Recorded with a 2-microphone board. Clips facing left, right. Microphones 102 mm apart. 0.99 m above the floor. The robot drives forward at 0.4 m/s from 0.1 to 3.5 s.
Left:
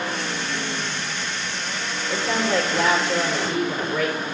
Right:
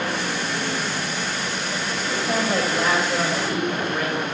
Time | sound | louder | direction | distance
2.1 | a woman speaking | left 1 dB | 75° left (ahead or behind) | 3 m